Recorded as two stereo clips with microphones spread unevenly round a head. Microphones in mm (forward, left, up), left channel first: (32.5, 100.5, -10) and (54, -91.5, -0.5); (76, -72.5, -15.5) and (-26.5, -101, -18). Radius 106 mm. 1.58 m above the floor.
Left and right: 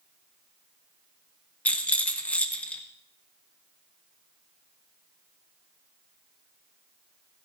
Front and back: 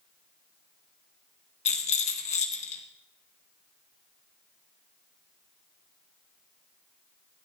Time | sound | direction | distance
1.6 | a rattle | 15° left | 1.5 m